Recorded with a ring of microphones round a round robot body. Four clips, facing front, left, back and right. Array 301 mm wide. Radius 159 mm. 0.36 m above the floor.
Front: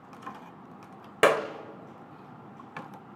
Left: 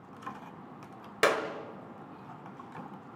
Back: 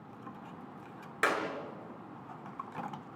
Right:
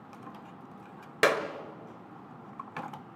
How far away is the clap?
About 1.7 m.